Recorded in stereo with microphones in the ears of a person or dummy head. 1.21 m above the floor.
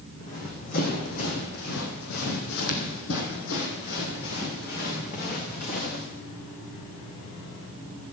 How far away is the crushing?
No crushing in this recording.